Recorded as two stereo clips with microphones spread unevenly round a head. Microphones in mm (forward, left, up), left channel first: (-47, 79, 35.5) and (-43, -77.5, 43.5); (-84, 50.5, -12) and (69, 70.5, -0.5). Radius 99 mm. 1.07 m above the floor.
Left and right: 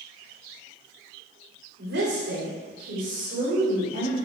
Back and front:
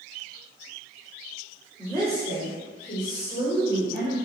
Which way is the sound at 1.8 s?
95° right.